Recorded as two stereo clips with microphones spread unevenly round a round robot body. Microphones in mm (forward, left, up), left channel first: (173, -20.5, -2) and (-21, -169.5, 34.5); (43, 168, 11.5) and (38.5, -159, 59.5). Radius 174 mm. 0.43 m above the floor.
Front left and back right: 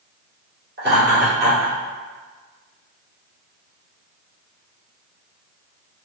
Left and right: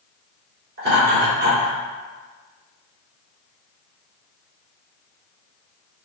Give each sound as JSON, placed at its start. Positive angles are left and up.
{"t": 0.8, "sound": "laughter", "azimuth_deg": -125, "distance_m": 1.6}